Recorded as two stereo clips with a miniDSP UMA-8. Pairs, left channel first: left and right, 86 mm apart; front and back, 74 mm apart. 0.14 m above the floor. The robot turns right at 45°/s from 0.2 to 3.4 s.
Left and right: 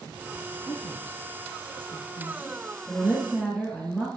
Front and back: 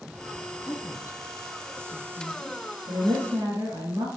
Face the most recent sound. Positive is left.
turn(degrees=-160)